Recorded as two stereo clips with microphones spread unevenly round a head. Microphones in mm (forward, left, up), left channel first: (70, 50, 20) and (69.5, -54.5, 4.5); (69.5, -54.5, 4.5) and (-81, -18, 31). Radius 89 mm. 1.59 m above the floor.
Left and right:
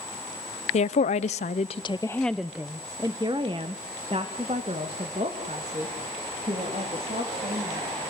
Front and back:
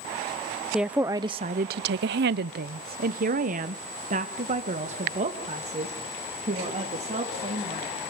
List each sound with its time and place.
0.7 s a woman speaking: 80° left, 0.7 m; by 8.1 s 145° right, 3.5 m